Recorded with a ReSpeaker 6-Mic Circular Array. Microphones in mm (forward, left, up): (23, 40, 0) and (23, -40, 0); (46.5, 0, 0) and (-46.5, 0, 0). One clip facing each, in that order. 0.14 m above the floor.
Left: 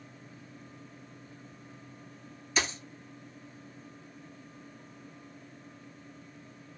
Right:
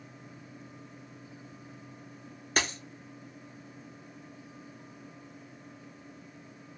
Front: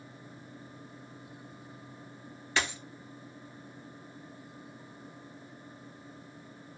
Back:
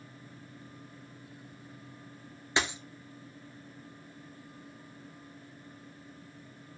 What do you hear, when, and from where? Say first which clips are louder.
2.6 s a dropped coin: right 1 dB, back 1 dB; 115° right, 0.7 m